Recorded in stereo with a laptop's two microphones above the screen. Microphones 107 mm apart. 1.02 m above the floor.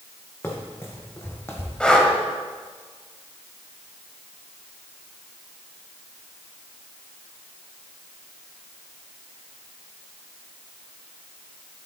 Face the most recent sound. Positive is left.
turn(degrees=10)  # may be behind; listen again after turning